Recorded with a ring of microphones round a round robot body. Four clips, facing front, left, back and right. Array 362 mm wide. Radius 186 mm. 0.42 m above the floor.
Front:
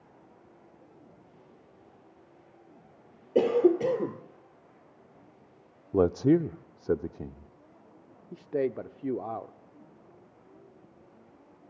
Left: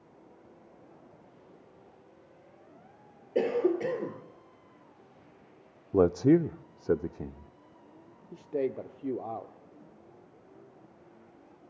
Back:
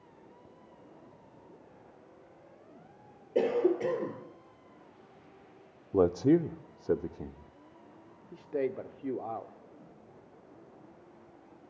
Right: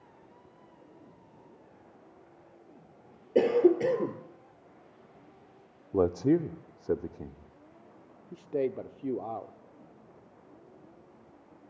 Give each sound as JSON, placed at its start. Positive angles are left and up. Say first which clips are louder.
{"t": 3.4, "sound": "a cough", "louder": "right 4 dB, front 5 dB", "azimuth_deg": -40, "distance_m": 1.8}
{"t": 5.9, "sound": "a man speaking", "louder": "left 3 dB, front 2 dB", "azimuth_deg": 50, "distance_m": 0.7}
{"t": 8.3, "sound": "a man speaking", "louder": "right 1 dB, front 3 dB", "azimuth_deg": -10, "distance_m": 1.1}